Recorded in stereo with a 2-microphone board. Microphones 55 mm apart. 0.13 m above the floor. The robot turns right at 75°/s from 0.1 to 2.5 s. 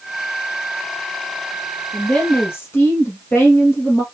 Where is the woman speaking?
5° left, 3 m; by 4.0 s 50° left, 3 m.